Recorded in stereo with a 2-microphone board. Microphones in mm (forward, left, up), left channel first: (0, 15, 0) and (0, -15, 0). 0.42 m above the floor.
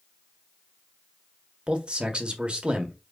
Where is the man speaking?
35° right (ahead or behind), 1.3 m.